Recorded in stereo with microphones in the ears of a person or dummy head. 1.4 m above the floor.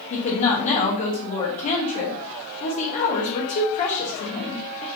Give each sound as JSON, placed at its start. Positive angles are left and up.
{"t": 0.1, "sound": "a woman speaking", "side_deg": 35, "distance_m": 0.9}